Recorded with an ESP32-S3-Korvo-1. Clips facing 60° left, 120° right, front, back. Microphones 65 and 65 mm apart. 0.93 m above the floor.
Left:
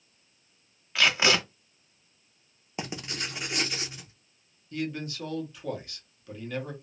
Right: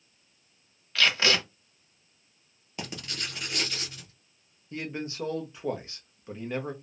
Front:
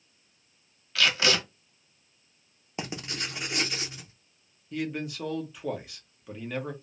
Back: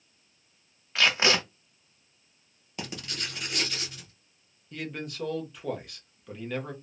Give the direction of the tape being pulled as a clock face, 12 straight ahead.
8 o'clock.